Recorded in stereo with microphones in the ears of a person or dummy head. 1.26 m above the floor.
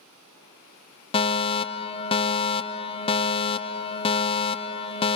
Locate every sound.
1.1 s a fire alarm: 20° left (ahead or behind), 0.8 m